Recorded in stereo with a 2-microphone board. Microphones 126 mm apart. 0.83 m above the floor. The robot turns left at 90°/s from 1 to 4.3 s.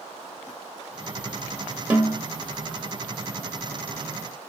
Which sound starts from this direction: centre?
A snare drum, at 1.9 s.